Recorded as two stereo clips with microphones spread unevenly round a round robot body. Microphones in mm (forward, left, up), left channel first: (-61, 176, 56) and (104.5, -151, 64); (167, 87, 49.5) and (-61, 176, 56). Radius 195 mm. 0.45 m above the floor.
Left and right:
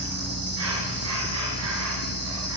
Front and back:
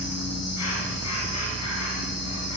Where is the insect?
15° right, 4.5 m.